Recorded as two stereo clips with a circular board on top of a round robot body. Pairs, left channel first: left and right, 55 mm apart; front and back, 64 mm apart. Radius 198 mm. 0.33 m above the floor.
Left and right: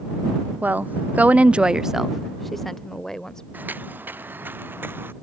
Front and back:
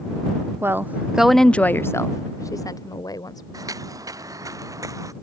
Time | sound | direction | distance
0.6 | a woman speaking | 140° right | ?
3.5 | footsteps | 150° right | ?